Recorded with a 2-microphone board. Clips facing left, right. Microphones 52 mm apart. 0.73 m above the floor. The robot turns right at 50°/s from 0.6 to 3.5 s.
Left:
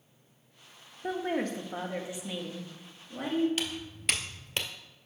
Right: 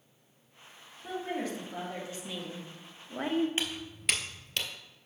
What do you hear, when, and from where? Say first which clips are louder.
1.0 s a woman speaking: left 4 dB; 110° left, 1.1 m; by 3.5 s 130° right, 1.1 m
3.6 s footsteps: even; 30° right (ahead or behind), 0.8 m; by 4.7 s 30° left (ahead or behind), 0.9 m